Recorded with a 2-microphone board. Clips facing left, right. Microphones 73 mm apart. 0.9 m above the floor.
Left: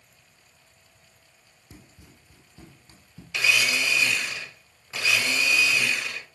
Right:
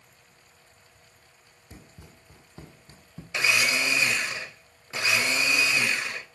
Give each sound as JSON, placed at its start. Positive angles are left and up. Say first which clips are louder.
{"t": 1.7, "sound": "running footsteps", "louder": "right 1 dB", "side_deg": -50, "distance_m": 1.4}
{"t": 3.3, "sound": "a blender", "louder": "left 1 dB", "side_deg": -30, "distance_m": 0.7}